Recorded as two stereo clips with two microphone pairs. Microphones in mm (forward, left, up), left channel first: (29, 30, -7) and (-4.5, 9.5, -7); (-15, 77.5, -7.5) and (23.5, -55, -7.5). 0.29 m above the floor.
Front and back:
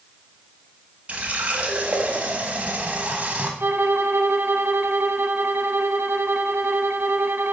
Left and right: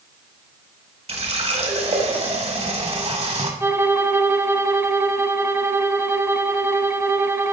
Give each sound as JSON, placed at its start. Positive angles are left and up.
{"t": 1.1, "sound": "a running tap", "azimuth_deg": -100, "distance_m": 1.3}
{"t": 3.6, "sound": "a violin", "azimuth_deg": -145, "distance_m": 0.6}